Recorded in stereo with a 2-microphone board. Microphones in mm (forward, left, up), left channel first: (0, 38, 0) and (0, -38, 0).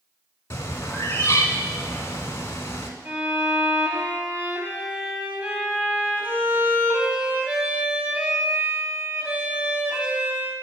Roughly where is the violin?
Centre.